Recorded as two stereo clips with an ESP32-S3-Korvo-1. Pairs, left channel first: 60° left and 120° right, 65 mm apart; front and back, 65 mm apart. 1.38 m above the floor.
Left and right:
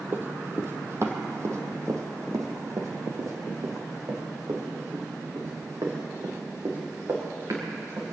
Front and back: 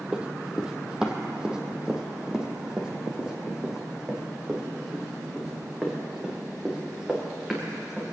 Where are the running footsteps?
115° right, 1.6 m; by 8.0 s 100° right, 5.5 m.